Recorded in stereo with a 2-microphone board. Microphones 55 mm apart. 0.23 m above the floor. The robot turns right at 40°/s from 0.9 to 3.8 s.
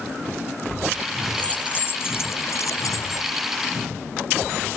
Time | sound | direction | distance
1.4 | keys jangling | 20° left (ahead or behind) | ?